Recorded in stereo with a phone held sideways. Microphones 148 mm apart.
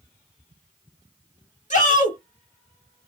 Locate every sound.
1.7 s a shout: 55° left (ahead or behind), 1.5 m